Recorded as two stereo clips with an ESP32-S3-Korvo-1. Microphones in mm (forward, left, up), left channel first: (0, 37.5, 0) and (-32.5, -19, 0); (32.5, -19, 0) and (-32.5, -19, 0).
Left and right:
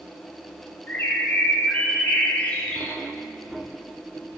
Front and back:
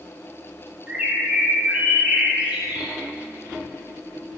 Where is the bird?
120° left, 1.3 m.